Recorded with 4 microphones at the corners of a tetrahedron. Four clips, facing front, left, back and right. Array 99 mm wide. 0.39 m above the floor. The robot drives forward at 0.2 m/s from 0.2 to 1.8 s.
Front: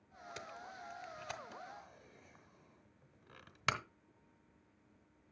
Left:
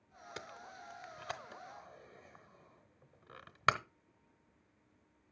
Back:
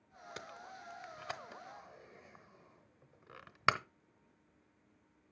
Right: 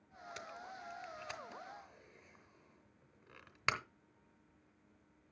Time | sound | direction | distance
0.4 | tape being pulled | 135° left | 0.8 m